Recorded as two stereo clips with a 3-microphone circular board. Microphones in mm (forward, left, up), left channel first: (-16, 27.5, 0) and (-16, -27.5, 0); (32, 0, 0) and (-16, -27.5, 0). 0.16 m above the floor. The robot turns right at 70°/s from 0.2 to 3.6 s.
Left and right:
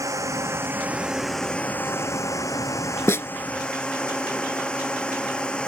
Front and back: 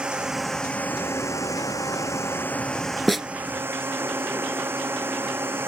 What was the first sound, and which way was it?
A drone, 75° right.